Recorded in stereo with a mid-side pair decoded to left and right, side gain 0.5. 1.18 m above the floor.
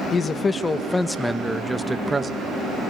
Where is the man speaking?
35° left, 1.6 m; by 2.3 s 30° right, 1.4 m.